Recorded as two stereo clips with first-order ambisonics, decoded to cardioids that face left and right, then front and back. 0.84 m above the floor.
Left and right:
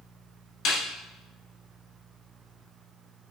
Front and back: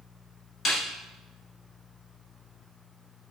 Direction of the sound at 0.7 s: 60° left.